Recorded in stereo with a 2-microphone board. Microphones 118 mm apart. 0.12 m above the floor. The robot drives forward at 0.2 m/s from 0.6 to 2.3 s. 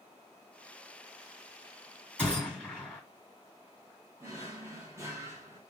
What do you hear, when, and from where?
2.2 s a gunshot: 10° left (ahead or behind), 2.5 m
4.2 s a drawer: 25° right (ahead or behind), 1.0 m